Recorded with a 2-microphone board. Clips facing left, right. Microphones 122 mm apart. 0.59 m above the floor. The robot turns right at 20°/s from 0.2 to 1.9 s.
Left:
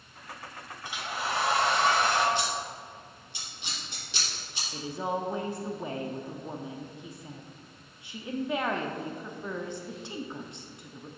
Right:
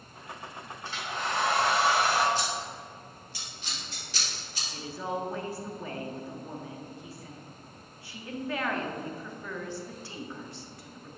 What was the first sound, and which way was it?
A hair dryer, 15° left (ahead or behind).